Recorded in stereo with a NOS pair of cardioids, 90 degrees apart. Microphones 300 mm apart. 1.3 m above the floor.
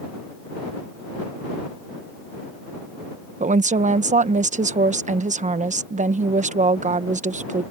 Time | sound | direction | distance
3.4 | a woman speaking | 25° right | ?